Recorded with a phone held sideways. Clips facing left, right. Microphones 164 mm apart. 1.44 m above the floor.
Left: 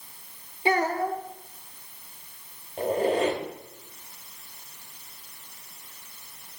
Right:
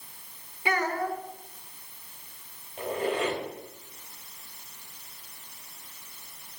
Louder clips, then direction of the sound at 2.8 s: Left 5 dB; 40° left (ahead or behind).